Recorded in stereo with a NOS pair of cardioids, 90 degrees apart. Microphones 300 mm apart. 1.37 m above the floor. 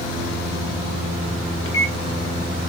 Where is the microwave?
45° left, 0.9 m.